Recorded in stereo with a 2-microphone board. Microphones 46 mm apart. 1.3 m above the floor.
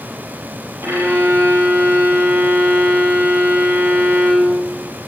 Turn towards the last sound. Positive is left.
turn(degrees=-60)  # may be behind; listen again after turning